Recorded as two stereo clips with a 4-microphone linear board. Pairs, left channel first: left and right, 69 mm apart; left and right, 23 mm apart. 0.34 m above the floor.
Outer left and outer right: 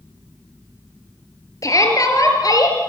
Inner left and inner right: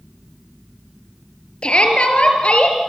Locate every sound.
1.6 s a shout: 50° left (ahead or behind), 5.5 m; by 2.8 s 60° left (ahead or behind), 5.5 m